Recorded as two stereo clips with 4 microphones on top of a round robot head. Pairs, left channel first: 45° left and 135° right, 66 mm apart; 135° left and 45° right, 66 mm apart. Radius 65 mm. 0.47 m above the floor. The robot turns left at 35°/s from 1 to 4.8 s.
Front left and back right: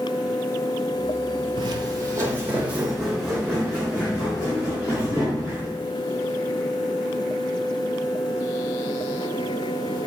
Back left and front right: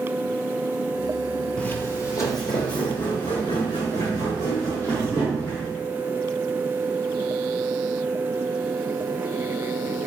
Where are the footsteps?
145° right, 0.7 m; by 5.7 s 75° left, 5.5 m.